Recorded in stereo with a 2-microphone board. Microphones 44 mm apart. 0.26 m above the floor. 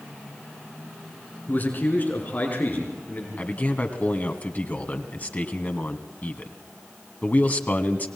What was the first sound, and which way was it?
A man speaking, 45° left (ahead or behind).